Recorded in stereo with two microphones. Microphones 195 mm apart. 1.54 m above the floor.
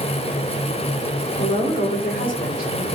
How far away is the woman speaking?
About 4.5 m.